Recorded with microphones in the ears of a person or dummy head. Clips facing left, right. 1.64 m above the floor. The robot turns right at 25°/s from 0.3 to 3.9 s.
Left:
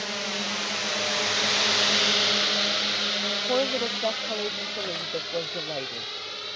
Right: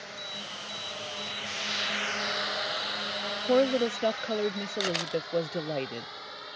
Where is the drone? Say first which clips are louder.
Left 10 dB; 80° left; by 6.5 s 40° left (ahead or behind).